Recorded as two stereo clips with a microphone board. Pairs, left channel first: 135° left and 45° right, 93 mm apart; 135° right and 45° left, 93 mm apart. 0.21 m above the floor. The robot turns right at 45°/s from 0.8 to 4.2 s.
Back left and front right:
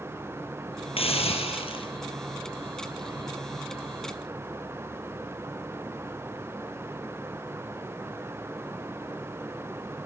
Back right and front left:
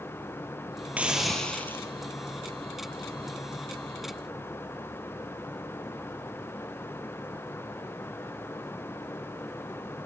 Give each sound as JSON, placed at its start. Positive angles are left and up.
{"t": 1.0, "sound": "a hiss", "azimuth_deg": 120, "distance_m": 3.0}